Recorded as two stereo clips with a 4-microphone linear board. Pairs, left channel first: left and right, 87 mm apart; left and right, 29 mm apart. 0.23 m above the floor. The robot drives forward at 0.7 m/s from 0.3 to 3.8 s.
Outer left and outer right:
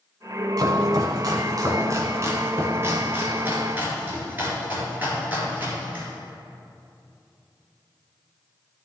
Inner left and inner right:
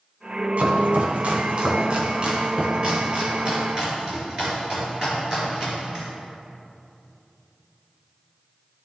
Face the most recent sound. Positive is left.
turn(degrees=-25)  # may be behind; listen again after turning